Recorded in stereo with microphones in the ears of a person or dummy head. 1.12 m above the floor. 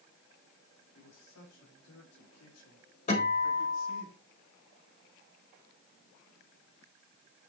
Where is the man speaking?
80° left, 5.5 m.